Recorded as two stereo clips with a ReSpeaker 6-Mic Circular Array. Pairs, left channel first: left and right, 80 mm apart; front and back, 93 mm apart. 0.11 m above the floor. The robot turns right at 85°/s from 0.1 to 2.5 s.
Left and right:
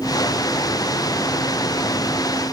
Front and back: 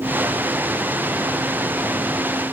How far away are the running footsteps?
I don't hear running footsteps.